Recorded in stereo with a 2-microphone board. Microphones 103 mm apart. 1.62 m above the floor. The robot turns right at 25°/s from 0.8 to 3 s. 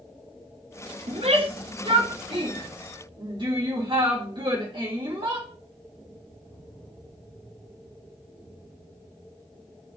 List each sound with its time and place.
1.1 s a shout: 75° right (ahead or behind), 3.5 m; by 5.5 s 50° right (ahead or behind), 3.5 m